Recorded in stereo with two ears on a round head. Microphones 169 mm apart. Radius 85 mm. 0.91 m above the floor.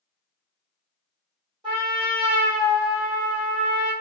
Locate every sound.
1.6 s a trumpet: 25° right (ahead or behind), 1.7 m